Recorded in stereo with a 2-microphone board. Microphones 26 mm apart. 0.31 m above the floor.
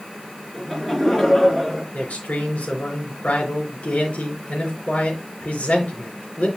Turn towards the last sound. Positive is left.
turn(degrees=75)  # may be behind; listen again after turning